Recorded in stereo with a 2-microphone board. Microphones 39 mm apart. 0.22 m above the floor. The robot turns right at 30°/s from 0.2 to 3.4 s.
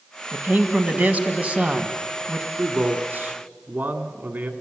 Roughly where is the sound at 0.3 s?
Right.